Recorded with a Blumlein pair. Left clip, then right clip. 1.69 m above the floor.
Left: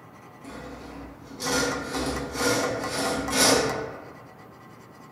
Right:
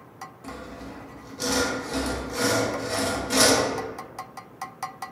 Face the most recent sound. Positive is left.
turn(degrees=-15)